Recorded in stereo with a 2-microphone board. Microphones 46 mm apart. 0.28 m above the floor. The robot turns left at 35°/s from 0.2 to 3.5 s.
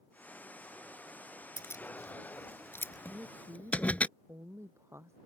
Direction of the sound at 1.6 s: 75° left (ahead or behind).